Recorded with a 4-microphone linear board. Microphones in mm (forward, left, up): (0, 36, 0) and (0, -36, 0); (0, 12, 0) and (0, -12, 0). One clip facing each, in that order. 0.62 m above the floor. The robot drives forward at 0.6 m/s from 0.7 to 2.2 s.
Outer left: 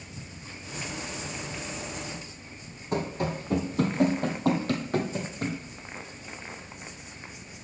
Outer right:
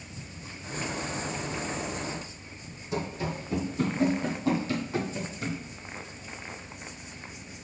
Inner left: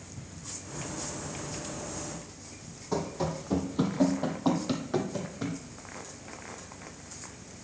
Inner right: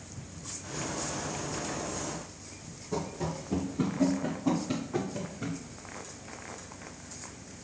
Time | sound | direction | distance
2.9 | running footsteps | 50° left (ahead or behind) | 1.8 m